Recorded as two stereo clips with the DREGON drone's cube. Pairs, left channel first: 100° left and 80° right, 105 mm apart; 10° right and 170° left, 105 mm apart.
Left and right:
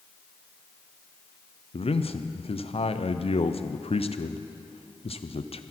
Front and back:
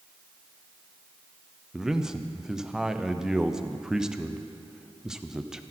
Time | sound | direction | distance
1.7 | a man speaking | 85° left | 0.6 m